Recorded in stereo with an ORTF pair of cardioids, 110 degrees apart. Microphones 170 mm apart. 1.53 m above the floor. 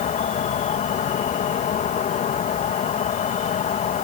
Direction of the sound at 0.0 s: 50° left.